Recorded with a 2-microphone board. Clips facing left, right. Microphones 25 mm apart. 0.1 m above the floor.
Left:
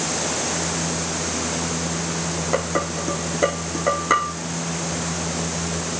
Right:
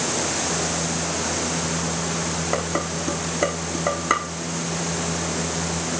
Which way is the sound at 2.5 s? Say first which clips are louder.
Left 4 dB; 5° right (ahead or behind).